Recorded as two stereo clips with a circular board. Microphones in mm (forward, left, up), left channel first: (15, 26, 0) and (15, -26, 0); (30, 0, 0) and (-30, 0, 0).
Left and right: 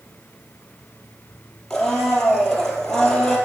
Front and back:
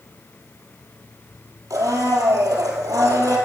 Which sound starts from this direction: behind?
A blender, at 1.7 s.